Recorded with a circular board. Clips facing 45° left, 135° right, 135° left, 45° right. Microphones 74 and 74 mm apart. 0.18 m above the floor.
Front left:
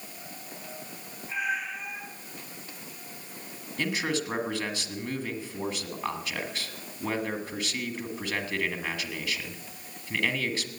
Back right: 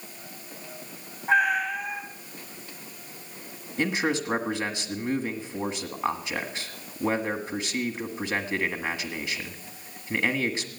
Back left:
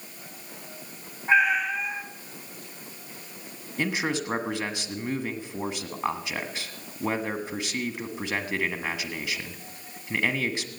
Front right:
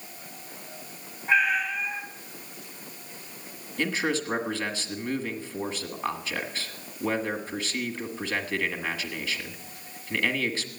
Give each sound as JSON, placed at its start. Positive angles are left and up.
{"t": 1.3, "sound": "a cat meowing", "azimuth_deg": -160, "distance_m": 3.0}
{"t": 3.8, "sound": "a man speaking", "azimuth_deg": -175, "distance_m": 1.4}